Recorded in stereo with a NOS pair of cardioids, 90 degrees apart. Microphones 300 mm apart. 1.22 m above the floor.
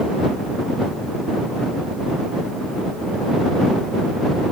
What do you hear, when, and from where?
Only background noise.